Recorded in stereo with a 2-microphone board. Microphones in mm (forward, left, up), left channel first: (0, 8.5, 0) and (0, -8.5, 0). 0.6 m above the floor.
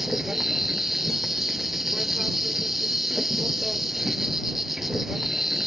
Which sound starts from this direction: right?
An insect, at 0.0 s.